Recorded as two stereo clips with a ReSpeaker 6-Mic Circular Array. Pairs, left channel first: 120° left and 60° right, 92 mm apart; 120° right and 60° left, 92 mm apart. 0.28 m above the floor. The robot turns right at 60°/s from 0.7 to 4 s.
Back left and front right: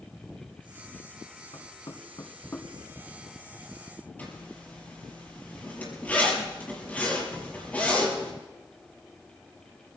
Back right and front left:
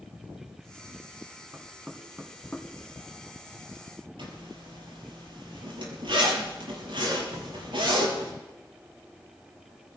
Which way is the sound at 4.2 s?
50° left.